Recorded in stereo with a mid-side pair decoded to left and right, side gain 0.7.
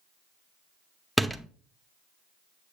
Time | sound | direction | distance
1.2 | a door slam | 5° right | 0.7 m